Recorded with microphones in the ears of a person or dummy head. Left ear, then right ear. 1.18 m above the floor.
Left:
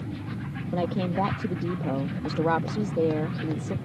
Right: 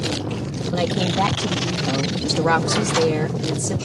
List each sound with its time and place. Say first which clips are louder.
0.7 s a woman speaking: right 6 dB; 70° right (ahead or behind)